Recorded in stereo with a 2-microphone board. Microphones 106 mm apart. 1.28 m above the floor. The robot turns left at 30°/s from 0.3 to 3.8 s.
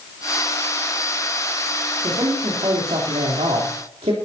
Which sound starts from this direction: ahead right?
A man speaking, at 2.0 s.